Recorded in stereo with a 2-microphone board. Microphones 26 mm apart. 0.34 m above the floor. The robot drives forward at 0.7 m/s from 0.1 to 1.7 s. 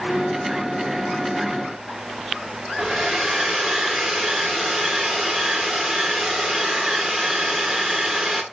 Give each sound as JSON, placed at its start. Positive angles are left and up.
{"t": 2.8, "sound": "a hair dryer", "side_deg": -5, "distance_m": 2.5}